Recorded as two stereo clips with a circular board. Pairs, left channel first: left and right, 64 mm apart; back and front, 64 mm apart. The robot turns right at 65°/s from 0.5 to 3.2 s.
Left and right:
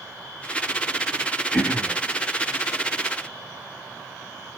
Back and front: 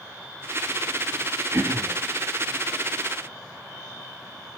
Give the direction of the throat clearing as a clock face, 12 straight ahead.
12 o'clock.